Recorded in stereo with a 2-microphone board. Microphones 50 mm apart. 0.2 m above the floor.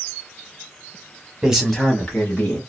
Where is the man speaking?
15° right (ahead or behind), 1.0 m; by 2.6 s 40° left (ahead or behind), 1.5 m.